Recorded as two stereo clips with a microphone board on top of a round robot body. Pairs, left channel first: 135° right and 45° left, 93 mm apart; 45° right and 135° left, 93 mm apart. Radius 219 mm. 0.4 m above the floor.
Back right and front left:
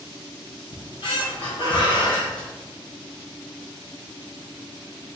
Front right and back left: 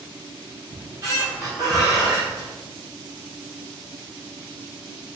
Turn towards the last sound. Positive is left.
turn(degrees=-170)